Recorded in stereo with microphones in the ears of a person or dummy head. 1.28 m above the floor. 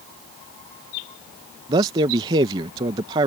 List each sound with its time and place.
1.7 s a man speaking: 20° right (ahead or behind)